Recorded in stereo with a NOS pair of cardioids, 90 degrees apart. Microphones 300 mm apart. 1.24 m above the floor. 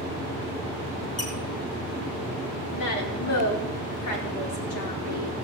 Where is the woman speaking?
65° left, 4 m.